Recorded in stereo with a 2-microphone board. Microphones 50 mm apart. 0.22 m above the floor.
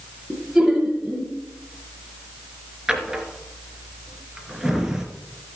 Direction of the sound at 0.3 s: Centre (ahead or behind).